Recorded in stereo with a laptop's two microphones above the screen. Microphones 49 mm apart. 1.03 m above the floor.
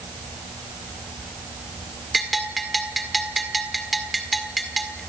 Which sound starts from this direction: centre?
A bell, at 2.1 s.